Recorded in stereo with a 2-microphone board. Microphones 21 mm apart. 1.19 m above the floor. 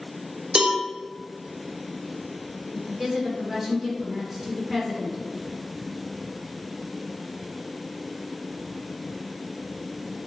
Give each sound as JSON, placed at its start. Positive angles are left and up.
{"t": 0.6, "sound": "a cowbell", "side_deg": -45, "distance_m": 0.7}
{"t": 2.7, "sound": "a woman speaking", "side_deg": -20, "distance_m": 1.3}